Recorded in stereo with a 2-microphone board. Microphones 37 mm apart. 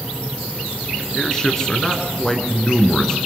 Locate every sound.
1.1 s a man speaking: 20° left (ahead or behind), 2.5 m